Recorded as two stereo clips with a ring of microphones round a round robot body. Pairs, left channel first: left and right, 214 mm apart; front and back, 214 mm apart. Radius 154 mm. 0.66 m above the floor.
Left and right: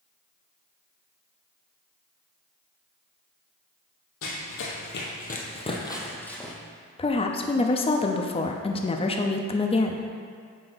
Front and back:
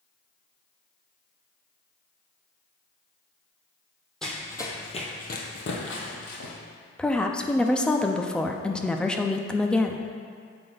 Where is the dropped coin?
No dropped coin in this recording.